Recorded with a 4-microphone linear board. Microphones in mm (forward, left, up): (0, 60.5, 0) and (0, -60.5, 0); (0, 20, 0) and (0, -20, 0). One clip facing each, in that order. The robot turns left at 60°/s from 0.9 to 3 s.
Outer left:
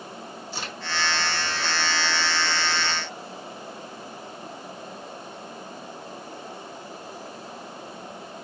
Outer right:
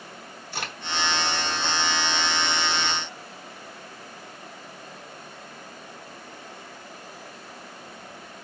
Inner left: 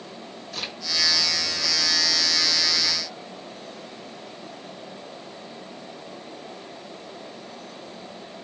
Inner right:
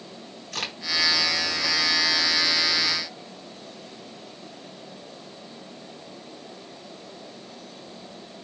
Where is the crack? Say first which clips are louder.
Outer right 3 dB, inner right 2 dB; 60° right (ahead or behind), 3 m.